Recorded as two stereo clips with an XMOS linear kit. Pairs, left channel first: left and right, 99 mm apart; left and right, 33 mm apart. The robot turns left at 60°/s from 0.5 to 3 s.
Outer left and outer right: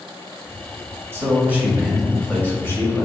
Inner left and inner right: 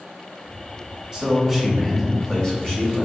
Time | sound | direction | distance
1.1 | a man speaking | 135° right | 1.0 m